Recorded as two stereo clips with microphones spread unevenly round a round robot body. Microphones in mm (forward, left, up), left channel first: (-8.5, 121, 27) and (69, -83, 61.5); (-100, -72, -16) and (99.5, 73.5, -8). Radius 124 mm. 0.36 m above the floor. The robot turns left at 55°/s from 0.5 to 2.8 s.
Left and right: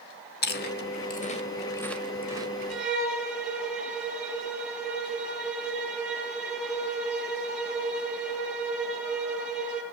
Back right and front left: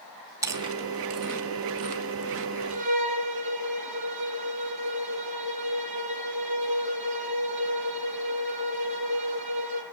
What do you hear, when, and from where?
0.4 s chewing: 115° left, 1.6 m; by 2.5 s 5° left, 1.6 m
2.7 s a violin: 25° left, 6 m; by 9.8 s 15° left, 6 m